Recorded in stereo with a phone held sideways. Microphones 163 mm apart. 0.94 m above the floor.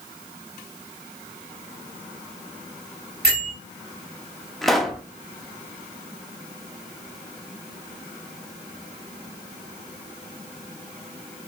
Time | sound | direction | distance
3.2 | a bell | 80° right | 3 m
4.6 | a pop | centre (ahead or behind) | 0.6 m